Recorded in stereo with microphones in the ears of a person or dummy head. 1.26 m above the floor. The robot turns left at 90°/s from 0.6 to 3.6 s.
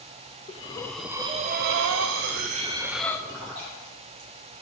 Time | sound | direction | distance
0.5 | breathing | 35° left | 0.5 m
3.3 | a splash | 70° right (ahead or behind) | 2.5 m